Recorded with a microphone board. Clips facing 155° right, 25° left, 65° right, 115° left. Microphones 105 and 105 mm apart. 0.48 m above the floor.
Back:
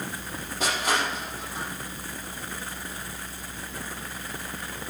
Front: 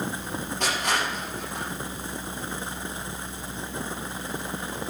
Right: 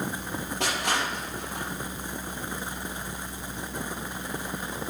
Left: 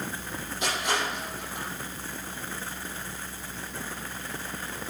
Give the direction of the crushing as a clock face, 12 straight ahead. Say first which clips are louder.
Back 1 dB, even; 2 o'clock.